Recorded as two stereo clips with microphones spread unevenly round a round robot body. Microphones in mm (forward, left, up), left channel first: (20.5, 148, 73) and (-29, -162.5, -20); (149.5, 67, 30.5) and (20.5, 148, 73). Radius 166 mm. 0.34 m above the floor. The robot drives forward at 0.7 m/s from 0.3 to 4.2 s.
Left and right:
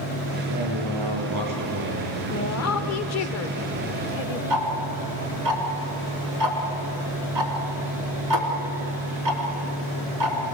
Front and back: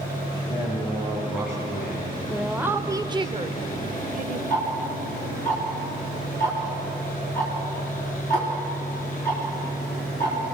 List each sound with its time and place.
0.5 s a man speaking: 70° right, 7.5 m; by 3.3 s 85° right, 7.5 m
2.3 s a woman speaking: 40° left, 1.4 m; by 4.4 s 140° left, 1.4 m
4.5 s ticking: 110° right, 3.5 m